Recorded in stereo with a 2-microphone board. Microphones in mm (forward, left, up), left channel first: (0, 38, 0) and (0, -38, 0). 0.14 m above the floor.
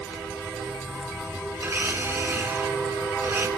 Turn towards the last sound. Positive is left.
turn(degrees=-25)  # may be behind; listen again after turning